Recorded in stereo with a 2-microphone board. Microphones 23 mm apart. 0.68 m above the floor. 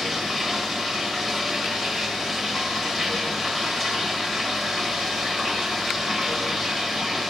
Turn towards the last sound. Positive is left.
turn(degrees=10)  # may be behind; listen again after turning